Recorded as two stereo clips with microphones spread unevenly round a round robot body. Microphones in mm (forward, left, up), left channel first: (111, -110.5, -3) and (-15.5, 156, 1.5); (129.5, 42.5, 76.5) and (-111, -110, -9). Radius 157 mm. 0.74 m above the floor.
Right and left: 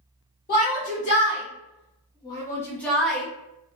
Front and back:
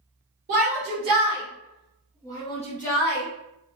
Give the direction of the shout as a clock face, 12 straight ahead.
4 o'clock.